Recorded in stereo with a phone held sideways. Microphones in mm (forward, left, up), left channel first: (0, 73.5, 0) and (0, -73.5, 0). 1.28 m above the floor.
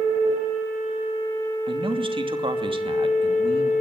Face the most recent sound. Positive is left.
turn(degrees=-40)  # may be behind; listen again after turning